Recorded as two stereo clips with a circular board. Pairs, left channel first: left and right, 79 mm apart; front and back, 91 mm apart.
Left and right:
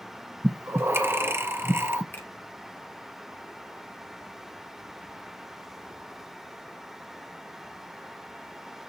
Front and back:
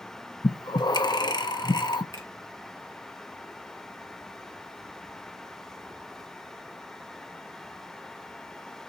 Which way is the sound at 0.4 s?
30° right.